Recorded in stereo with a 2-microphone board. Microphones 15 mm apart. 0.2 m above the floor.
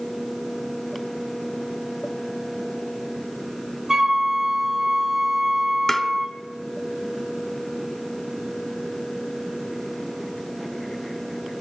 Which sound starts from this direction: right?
A flute, at 3.9 s.